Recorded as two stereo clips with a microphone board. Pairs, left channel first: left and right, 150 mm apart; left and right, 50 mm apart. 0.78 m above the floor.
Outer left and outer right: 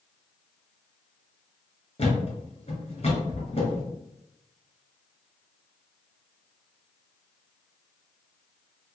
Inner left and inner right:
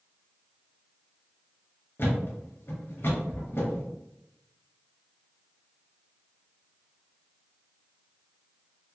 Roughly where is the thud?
Left.